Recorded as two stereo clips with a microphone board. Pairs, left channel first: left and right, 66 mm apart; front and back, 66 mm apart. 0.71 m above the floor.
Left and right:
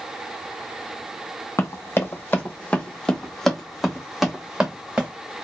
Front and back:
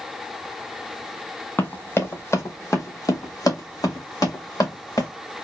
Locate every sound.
1.6 s running footsteps: 55° left, 1.3 m; by 5.1 s 15° right, 2 m